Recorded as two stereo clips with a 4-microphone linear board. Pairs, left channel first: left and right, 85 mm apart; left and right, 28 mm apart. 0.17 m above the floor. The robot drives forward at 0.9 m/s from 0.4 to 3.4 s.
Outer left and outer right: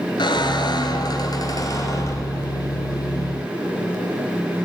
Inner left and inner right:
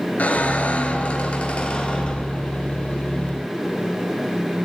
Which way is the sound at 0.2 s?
65° left (ahead or behind).